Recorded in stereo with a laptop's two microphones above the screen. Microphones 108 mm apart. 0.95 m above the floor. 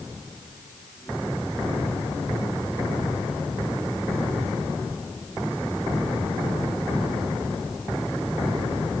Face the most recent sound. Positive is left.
No sound to turn to.